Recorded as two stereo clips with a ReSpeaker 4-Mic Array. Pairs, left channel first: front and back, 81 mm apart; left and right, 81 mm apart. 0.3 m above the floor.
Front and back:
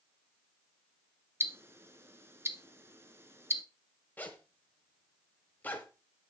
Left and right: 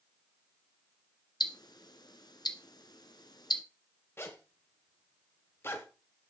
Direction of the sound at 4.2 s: 55° left.